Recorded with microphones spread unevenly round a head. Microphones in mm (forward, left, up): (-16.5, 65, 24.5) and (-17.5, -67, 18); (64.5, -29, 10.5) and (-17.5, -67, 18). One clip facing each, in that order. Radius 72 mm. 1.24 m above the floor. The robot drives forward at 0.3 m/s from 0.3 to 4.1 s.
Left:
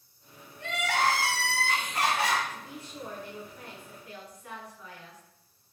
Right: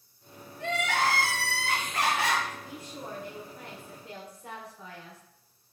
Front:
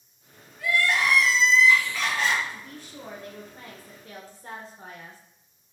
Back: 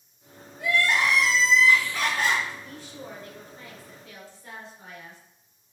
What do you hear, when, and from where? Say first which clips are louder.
0.6 s crying: even, back 1 dB; 85° right, 1.0 m; by 2.4 s 115° right, 1.1 m
2.5 s a woman speaking: right 1 dB, even; 15° right, 1.2 m; by 5.2 s 25° right, 0.7 m